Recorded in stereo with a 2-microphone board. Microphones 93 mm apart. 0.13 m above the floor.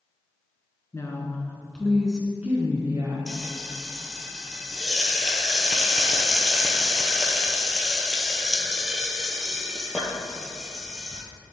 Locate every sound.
0.9 s a woman speaking: 35° left (ahead or behind), 1.2 m; by 3.2 s 35° right (ahead or behind), 1.3 m
3.3 s frying: 5° right (ahead or behind), 0.9 m